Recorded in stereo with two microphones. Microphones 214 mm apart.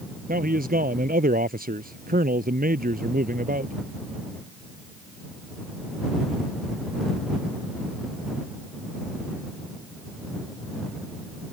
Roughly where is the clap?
I don't hear a clap.